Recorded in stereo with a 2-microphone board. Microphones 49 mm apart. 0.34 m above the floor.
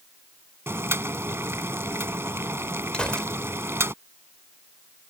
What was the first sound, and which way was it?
Boiling, 65° right (ahead or behind).